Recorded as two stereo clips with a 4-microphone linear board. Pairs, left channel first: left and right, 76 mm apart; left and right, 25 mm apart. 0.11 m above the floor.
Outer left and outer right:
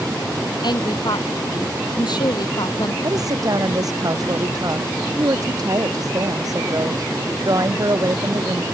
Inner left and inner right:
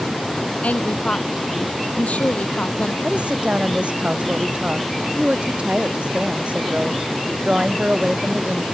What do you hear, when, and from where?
0.6 s a woman speaking: 65° left (ahead or behind)
3.0 s a woman speaking: 50° right (ahead or behind)